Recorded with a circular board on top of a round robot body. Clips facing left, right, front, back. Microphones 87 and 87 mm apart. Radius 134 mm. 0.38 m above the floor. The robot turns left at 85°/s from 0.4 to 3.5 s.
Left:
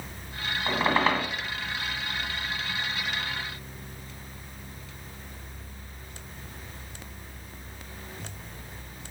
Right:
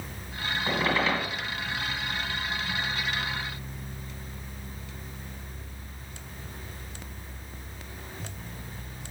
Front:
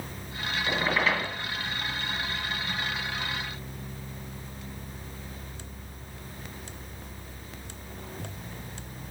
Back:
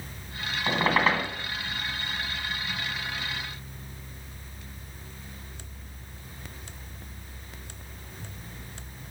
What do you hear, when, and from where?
0.7 s a squeak: 165° left, 2 m; by 1.3 s 110° left, 2 m